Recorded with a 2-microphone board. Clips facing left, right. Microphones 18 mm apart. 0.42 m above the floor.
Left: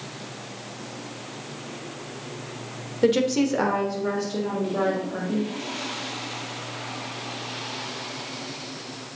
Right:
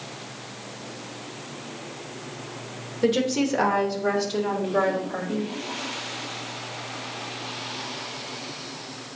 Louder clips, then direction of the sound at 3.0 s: Left 2 dB; 10° left (ahead or behind).